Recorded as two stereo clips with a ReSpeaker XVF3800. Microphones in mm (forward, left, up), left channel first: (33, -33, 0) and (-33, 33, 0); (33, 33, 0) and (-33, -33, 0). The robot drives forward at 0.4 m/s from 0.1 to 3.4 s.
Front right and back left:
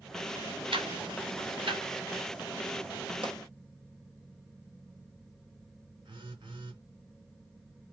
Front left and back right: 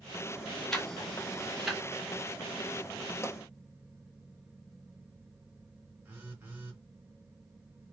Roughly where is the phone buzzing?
Behind.